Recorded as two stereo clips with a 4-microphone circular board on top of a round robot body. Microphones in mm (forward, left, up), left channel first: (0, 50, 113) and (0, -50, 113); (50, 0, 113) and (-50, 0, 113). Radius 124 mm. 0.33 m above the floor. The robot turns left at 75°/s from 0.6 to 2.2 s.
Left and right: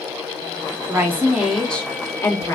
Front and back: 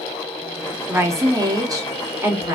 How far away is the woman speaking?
About 1.4 m.